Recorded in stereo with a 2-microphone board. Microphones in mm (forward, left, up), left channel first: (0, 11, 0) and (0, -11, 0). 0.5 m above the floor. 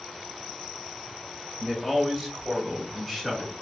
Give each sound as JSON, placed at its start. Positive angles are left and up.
{"t": 1.6, "sound": "a man speaking", "side_deg": -15, "distance_m": 2.5}